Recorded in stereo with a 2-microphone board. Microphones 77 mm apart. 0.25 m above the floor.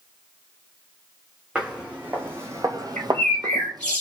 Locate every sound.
1.6 s footsteps: 15° right (ahead or behind), 1.1 m; by 4.0 s 55° right (ahead or behind), 0.7 m
3.0 s a bird: 15° left (ahead or behind), 1.0 m